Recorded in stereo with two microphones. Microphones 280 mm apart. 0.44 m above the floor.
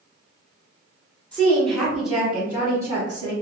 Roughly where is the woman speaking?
Centre.